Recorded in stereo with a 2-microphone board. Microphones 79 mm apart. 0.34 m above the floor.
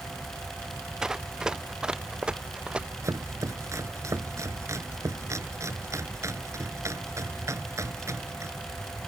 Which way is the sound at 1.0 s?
10° right (ahead or behind).